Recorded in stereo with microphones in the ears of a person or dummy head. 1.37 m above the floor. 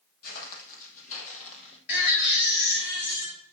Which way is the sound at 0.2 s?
55° left (ahead or behind).